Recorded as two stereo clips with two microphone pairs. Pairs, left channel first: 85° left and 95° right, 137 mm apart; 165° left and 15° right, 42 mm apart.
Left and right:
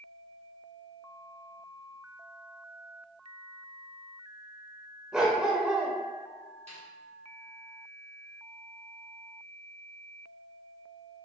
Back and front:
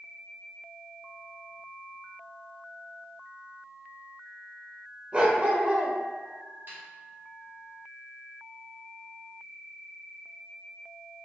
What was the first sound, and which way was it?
A dog barking, 20° right.